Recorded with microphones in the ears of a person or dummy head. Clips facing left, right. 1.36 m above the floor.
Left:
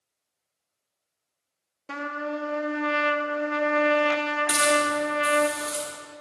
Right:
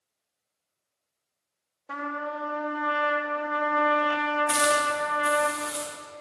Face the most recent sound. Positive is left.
turn(degrees=55)  # may be behind; listen again after turning